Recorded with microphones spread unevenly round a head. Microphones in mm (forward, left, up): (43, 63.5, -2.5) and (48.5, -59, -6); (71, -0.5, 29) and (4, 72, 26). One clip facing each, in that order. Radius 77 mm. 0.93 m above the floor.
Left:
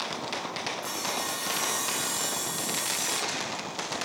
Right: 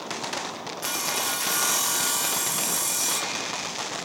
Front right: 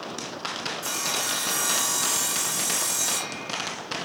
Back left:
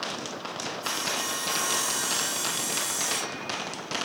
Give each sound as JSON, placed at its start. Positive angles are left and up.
{"t": 0.8, "sound": "sawing", "azimuth_deg": -80, "distance_m": 5.0}